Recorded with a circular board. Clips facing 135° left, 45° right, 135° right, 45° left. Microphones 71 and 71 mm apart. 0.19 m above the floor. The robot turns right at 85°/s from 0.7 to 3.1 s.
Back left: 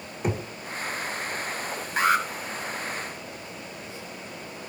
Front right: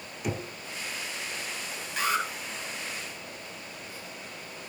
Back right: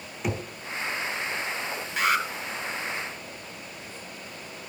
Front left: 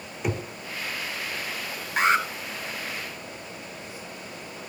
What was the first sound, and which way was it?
Knocking, 135° left.